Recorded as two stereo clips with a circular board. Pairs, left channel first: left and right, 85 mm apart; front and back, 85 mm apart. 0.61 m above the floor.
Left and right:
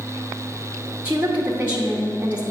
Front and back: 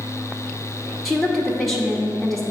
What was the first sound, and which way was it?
A woman speaking, 90° right.